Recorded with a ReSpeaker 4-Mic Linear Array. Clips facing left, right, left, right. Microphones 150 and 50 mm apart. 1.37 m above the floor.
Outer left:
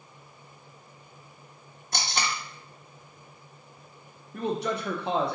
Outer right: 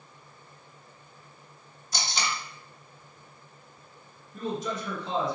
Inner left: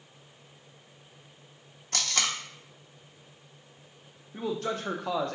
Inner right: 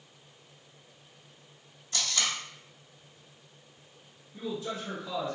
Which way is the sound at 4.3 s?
65° left (ahead or behind).